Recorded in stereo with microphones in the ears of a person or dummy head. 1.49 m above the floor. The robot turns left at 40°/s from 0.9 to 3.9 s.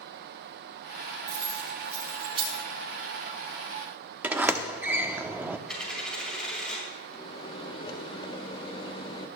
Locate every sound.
1.3 s keys jangling: 15° left (ahead or behind), 6 m; by 2.6 s 40° right (ahead or behind), 6 m
4.2 s a sliding door: 15° right (ahead or behind), 0.6 m
5.7 s a dropped coin: 5° left (ahead or behind), 5.5 m
7.1 s a microwave: 30° left (ahead or behind), 1.2 m